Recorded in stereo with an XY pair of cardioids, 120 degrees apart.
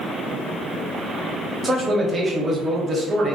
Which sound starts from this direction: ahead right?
A man speaking, at 1.6 s.